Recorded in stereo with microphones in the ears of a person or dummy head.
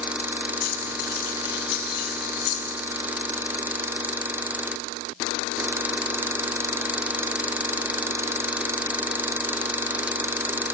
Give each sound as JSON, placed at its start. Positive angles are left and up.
{"t": 0.6, "sound": "keys jangling", "side_deg": 60, "distance_m": 8.5}